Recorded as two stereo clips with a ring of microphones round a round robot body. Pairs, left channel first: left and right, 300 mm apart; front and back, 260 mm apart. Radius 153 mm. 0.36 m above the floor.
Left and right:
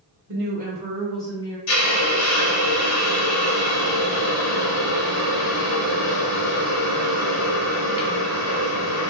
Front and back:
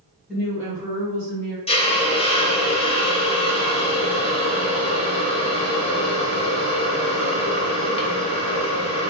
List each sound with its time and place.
0.3 s a woman speaking: 90° right, 1.4 m; by 1.6 s 155° left, 1.4 m
1.7 s a hiss: 65° left, 0.9 m